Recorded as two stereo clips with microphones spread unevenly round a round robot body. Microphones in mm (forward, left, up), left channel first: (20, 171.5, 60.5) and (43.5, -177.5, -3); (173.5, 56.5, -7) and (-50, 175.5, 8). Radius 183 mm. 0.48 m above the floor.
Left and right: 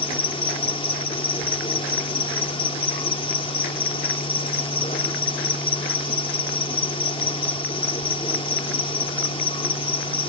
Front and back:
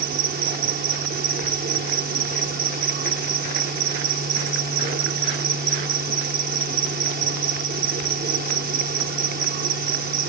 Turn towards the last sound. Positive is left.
turn(degrees=175)